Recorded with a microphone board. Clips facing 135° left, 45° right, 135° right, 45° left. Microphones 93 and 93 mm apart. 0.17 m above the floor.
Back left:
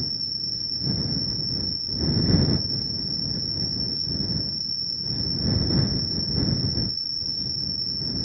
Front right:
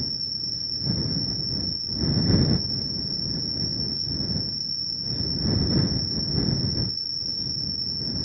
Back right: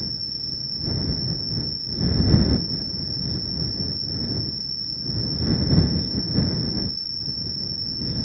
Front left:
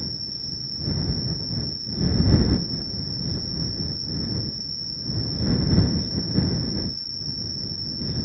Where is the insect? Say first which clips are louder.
Even, even; 10° right.